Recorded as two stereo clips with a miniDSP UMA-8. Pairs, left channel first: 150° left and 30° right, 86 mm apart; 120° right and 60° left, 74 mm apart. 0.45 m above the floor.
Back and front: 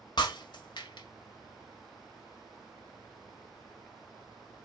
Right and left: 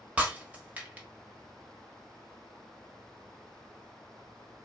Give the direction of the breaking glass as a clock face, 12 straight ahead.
8 o'clock.